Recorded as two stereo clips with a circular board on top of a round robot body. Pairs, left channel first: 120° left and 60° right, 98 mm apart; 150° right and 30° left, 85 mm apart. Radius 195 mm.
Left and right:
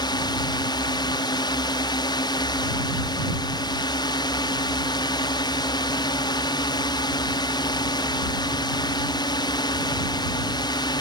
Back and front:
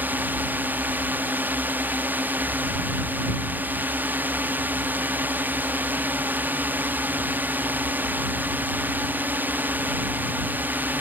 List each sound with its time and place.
0.0 s a drone: 95° left